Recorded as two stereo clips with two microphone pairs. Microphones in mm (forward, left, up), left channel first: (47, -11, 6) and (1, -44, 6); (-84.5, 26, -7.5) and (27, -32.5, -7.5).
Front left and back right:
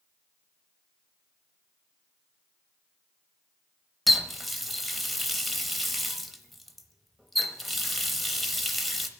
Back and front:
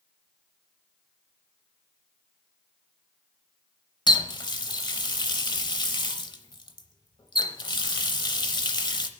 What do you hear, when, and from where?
4.1 s a running tap: 125° left, 0.7 m